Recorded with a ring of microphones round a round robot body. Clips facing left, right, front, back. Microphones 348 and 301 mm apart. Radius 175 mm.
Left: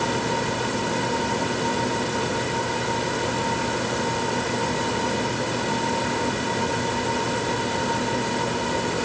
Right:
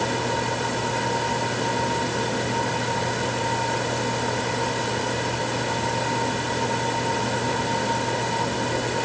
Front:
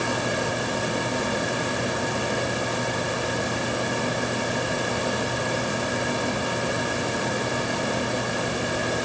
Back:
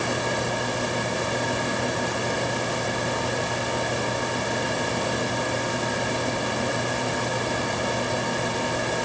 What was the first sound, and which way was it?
Only background noise.